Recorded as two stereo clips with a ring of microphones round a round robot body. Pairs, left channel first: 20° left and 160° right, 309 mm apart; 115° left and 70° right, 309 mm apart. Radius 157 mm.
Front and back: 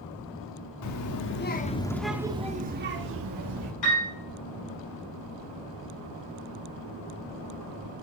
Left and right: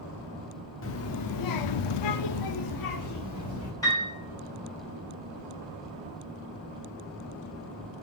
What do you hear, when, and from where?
0.8 s a child speaking: 60° left, 0.9 m; by 3.7 s 160° left, 1.3 m
3.8 s a piano: 35° left, 5.5 m